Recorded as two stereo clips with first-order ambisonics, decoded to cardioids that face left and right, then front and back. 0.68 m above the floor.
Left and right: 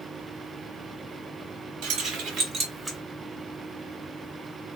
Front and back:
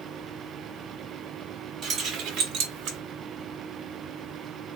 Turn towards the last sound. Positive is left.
turn(degrees=-160)